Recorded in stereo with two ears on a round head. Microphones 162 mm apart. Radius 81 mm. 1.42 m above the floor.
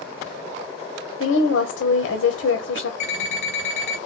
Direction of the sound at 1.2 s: 75° left (ahead or behind).